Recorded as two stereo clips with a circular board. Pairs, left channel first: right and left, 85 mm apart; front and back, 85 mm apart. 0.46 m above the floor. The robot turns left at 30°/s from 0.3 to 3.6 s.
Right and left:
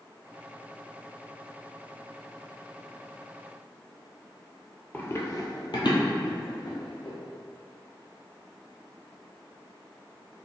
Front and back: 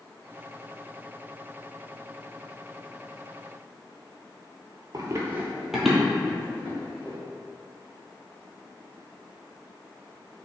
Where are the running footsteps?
155° right, 0.6 m; by 7.2 s 65° right, 1.8 m.